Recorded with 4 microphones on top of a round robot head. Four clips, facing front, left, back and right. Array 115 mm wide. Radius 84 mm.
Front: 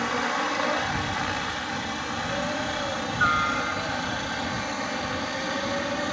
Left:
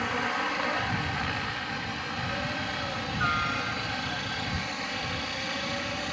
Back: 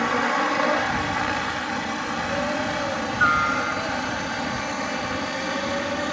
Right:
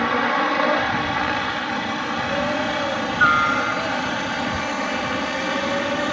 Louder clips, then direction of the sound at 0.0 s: Right 10 dB, back 4 dB; 110° right.